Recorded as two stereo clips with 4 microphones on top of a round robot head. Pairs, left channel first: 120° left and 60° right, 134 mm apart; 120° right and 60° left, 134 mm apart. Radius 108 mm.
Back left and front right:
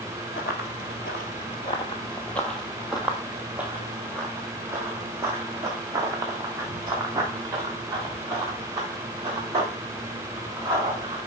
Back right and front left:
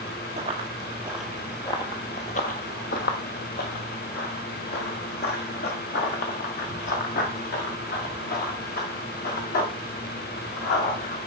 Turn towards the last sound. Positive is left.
turn(degrees=-125)